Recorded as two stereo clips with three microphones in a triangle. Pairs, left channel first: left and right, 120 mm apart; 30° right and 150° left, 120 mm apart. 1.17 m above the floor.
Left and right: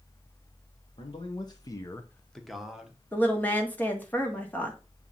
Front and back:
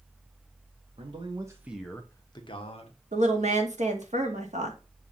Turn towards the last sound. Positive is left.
turn(degrees=165)